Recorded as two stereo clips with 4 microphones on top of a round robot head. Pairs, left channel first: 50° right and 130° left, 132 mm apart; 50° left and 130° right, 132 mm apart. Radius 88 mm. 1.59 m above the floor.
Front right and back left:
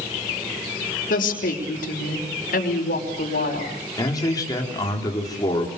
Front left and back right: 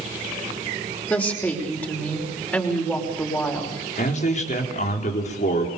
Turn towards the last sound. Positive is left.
turn(degrees=15)